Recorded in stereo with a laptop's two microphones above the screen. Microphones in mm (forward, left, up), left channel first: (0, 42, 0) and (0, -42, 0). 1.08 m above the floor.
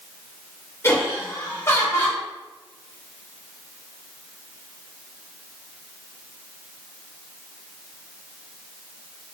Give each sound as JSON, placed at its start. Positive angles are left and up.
{"t": 0.8, "sound": "laughter", "side_deg": 30, "distance_m": 0.9}